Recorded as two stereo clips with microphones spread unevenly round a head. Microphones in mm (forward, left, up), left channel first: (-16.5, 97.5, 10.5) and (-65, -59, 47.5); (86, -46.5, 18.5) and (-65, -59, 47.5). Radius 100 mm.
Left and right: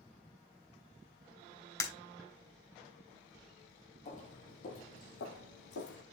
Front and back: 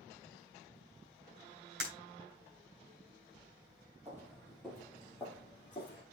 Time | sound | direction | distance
1.8 | breaking glass | 145° left | 3 m
4.0 | footsteps | 120° left | 1.7 m